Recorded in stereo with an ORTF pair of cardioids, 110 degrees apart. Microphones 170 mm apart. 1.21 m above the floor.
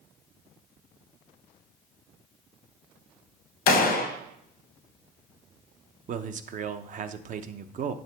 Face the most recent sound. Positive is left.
turn(degrees=-50)